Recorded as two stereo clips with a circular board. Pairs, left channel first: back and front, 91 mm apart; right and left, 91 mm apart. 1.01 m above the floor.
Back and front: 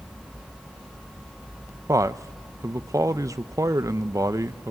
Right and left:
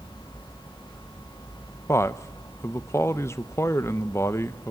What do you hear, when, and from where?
1.9 s a man speaking: 40° right, 0.6 m